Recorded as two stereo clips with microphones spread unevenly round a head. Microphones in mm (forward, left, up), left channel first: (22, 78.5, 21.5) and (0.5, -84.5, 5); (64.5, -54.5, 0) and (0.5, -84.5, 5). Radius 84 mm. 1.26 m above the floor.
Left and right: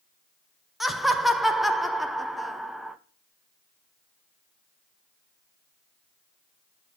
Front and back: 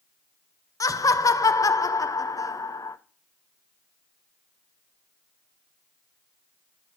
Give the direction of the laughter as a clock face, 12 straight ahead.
12 o'clock.